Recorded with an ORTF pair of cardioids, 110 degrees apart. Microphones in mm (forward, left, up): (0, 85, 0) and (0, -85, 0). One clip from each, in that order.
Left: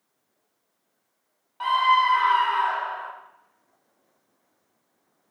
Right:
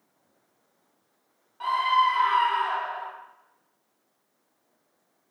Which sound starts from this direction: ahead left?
A scream, at 1.6 s.